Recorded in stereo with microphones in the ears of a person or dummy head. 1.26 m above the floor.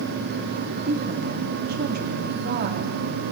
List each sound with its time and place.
0.8 s a woman speaking: 45° right (ahead or behind), 2.5 m